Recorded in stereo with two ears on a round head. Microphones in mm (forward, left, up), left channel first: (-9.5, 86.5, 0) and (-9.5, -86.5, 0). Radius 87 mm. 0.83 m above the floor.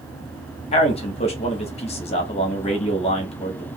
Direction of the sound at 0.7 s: 30° left (ahead or behind).